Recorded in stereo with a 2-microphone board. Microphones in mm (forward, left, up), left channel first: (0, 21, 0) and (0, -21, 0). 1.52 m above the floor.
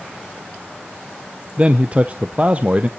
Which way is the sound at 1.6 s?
30° right (ahead or behind).